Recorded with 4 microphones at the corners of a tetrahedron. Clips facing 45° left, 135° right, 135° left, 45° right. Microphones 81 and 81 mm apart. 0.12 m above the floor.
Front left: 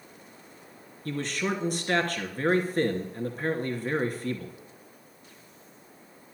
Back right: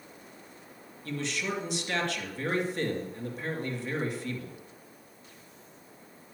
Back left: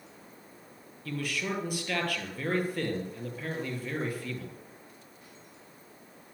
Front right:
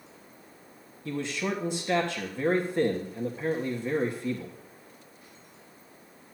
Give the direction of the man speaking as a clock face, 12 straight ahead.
12 o'clock.